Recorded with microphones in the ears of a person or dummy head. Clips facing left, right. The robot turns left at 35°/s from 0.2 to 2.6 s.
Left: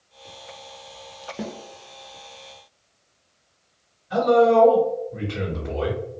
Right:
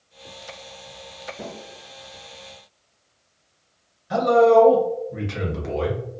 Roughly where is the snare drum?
Left.